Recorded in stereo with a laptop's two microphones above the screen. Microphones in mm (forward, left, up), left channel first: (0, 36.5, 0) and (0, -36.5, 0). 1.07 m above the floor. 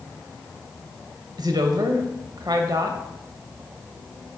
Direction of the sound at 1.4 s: 65° right (ahead or behind).